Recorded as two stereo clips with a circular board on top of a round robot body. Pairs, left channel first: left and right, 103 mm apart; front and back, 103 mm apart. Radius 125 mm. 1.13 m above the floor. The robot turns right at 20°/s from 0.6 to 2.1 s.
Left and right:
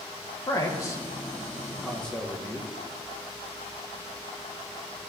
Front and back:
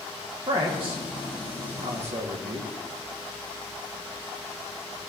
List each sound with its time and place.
0.5 s a man speaking: 145° left, 2.5 m; by 2.7 s 175° left, 2.5 m